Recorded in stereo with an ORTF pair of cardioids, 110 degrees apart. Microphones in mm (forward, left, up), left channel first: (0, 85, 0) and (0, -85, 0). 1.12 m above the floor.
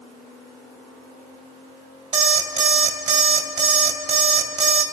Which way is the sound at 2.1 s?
50° right.